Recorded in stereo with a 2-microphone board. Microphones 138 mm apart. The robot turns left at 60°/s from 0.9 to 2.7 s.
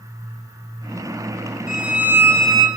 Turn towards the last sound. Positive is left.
turn(degrees=25)